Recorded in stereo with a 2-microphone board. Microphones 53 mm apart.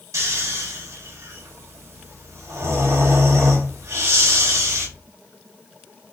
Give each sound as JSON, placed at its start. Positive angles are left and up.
{"t": 0.1, "sound": "snoring", "side_deg": -80, "distance_m": 3.0}